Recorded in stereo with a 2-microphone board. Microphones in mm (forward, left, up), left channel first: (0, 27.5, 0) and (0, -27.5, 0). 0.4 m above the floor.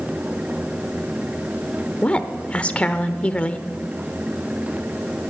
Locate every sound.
2.0 s a woman speaking: 25° left (ahead or behind), 0.8 m